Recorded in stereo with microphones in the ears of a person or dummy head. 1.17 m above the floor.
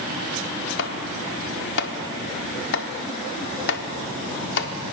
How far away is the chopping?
About 1.3 m.